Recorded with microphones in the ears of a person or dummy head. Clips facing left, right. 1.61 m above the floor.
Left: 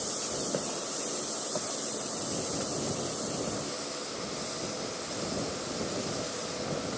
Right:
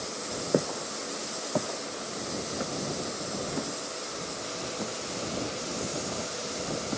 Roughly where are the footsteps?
Right.